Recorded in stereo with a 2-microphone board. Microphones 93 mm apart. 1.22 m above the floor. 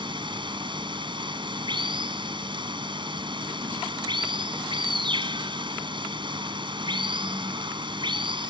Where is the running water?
60° right (ahead or behind).